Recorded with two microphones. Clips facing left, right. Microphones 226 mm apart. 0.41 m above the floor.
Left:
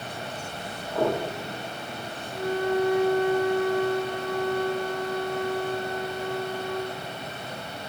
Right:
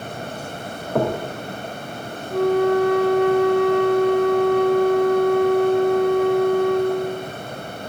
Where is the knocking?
65° right (ahead or behind), 2.5 m.